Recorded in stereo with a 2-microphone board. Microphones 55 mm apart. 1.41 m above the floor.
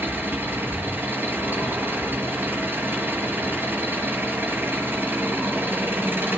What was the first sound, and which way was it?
An engine running, 40° right (ahead or behind).